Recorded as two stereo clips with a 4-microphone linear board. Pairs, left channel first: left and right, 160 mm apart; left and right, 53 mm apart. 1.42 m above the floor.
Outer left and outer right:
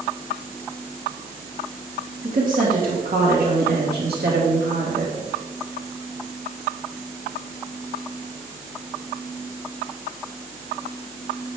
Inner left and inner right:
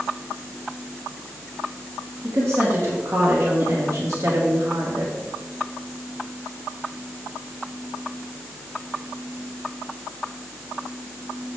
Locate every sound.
2.2 s a woman speaking: 55° right (ahead or behind), 2.5 m; by 5.3 s 85° right, 3 m